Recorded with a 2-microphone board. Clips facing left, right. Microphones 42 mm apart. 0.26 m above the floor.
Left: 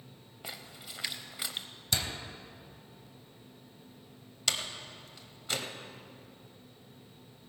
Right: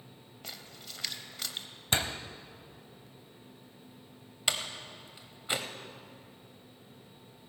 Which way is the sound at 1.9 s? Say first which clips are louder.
Right 3 dB; 35° right (ahead or behind).